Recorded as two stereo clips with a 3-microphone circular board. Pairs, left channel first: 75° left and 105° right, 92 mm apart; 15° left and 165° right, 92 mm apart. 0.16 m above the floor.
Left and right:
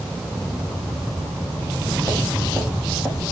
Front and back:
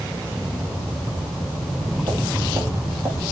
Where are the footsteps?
165° left, 6.5 m; by 3.2 s 175° left, 5.5 m.